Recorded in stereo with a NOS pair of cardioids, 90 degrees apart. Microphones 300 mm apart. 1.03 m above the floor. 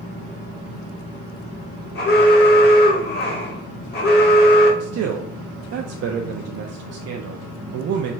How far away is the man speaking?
About 0.5 m.